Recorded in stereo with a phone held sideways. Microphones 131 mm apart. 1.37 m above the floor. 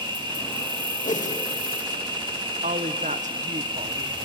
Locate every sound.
0.0 s an insect: 35° right (ahead or behind), 2 m
1.0 s a whoosh: 75° left (ahead or behind), 2 m
2.6 s a woman speaking: 70° right (ahead or behind), 1.0 m